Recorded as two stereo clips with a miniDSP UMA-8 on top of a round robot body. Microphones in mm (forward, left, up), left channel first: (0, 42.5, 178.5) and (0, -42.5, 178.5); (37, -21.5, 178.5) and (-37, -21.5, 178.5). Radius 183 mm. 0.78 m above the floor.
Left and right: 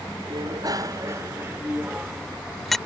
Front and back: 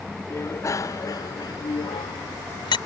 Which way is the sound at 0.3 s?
55° right.